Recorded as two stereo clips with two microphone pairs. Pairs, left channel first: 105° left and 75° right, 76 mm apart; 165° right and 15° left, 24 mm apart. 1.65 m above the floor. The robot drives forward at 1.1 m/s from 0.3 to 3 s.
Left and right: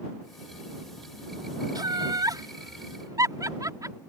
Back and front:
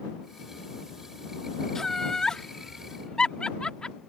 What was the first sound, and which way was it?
Laughter, 95° right.